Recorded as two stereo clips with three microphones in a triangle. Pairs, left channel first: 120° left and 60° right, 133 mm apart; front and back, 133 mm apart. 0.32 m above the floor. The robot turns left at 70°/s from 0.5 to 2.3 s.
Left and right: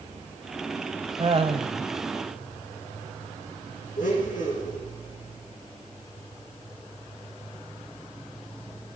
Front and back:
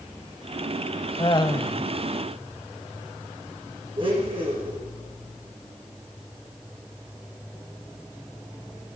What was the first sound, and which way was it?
Laughter, 30° right.